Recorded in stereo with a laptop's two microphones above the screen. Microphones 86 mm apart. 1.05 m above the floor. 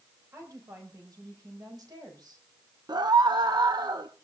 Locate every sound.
0.3 s a woman speaking: 40° right (ahead or behind), 5 m; by 2.5 s 55° right (ahead or behind), 5 m
2.9 s a scream: 60° right (ahead or behind), 1.0 m